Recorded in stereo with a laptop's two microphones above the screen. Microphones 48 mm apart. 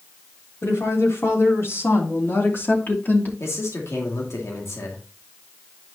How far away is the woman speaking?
About 3.5 m.